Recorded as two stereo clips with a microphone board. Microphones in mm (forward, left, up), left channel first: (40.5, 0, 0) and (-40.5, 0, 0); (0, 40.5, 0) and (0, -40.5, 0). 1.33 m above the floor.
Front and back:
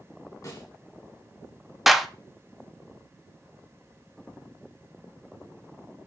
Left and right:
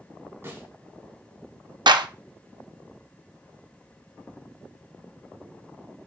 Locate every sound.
0.4 s a snare drum: 35° right, 3 m
1.9 s a clap: 90° right, 0.5 m